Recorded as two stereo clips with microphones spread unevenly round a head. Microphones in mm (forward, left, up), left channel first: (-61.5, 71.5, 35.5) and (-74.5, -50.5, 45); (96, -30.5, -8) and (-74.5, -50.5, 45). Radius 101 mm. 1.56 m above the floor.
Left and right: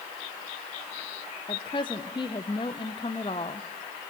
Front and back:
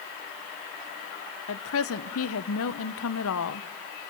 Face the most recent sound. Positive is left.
turn(degrees=15)